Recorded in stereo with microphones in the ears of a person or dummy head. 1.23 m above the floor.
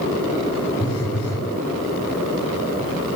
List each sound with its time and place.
0.8 s a phone buzzing: 45° left (ahead or behind), 3 m